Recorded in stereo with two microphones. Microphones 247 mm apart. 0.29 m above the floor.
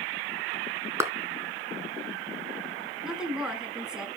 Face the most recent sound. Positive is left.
turn(degrees=-5)  # may be behind; listen again after turning